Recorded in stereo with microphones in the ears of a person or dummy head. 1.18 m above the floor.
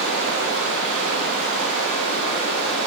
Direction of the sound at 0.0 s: 35° left (ahead or behind).